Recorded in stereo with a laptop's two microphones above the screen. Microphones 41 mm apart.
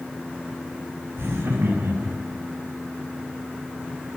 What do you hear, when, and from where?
1.2 s laughter: 85° right, 5.5 m; by 2.4 s 80° right, 3.5 m